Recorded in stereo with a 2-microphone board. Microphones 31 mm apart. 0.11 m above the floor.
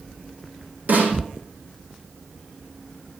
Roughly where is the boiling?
No boiling in this recording.